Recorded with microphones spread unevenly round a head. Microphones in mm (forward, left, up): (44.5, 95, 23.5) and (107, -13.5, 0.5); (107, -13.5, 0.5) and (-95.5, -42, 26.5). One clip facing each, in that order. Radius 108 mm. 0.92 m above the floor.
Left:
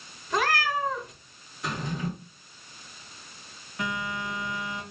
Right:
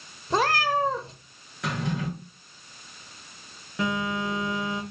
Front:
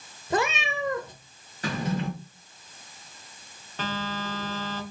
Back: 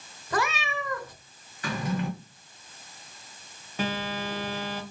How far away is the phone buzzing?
About 0.8 m.